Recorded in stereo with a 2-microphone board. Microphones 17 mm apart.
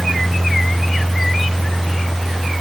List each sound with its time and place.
Only background noise.